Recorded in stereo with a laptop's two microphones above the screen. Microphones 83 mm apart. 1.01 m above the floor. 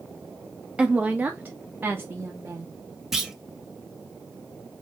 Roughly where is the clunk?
Centre.